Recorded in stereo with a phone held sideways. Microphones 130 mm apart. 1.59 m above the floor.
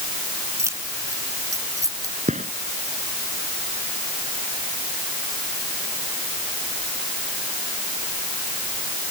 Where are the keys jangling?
20° right (ahead or behind); by 2.1 s 25° right (ahead or behind).